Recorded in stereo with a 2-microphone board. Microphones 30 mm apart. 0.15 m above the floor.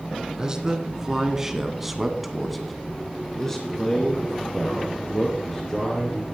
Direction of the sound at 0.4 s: 25° right (ahead or behind).